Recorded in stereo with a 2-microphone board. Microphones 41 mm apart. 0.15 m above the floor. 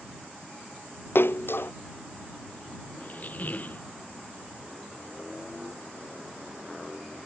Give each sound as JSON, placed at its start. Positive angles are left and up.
{"t": 1.1, "sound": "a splash", "side_deg": 65}
{"t": 3.0, "sound": "a squeak", "side_deg": 40}